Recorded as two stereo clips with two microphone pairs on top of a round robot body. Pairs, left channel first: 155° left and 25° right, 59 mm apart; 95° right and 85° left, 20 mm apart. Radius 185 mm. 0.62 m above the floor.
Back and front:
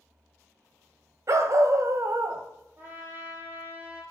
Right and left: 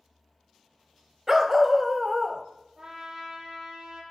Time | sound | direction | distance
1.3 | a dog barking | 15° left | 0.8 m
2.8 | a trumpet | 30° left | 8.5 m